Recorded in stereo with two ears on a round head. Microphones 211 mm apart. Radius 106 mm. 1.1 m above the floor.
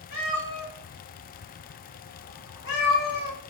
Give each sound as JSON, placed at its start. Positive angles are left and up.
{"t": 0.1, "sound": "a cat meowing", "side_deg": 70, "distance_m": 1.7}